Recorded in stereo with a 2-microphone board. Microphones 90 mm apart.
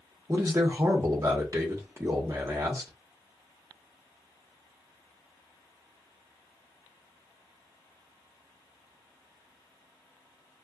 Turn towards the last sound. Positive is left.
turn(degrees=-35)  # may be behind; listen again after turning